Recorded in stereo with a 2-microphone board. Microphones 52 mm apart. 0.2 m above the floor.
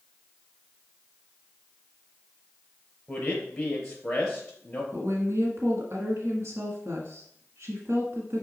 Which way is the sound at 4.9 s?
55° right (ahead or behind).